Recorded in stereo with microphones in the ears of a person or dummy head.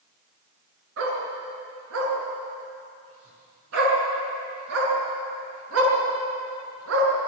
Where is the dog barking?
85° right, 7 m.